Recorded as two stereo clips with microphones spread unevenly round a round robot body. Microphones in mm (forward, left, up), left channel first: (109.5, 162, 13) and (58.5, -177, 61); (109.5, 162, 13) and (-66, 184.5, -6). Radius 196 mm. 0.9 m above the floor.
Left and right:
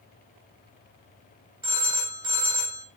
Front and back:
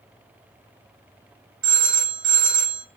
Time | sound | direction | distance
1.6 | a phone ringing | 175° right | 2.5 m